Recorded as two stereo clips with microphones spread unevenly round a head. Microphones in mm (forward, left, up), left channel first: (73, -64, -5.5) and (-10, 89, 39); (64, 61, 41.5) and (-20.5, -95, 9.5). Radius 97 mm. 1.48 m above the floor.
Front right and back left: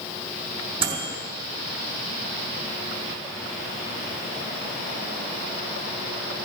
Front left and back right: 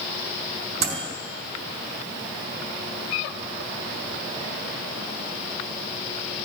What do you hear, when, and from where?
0.8 s a microwave: straight behind, 3 m